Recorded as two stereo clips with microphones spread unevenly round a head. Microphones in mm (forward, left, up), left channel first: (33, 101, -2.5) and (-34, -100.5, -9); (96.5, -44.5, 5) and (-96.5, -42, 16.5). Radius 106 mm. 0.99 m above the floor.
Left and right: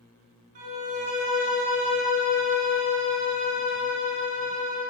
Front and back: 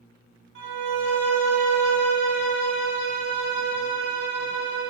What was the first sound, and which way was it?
A violin, 165° right.